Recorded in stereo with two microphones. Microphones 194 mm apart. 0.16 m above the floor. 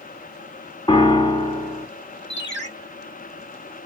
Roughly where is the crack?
I don't hear a crack.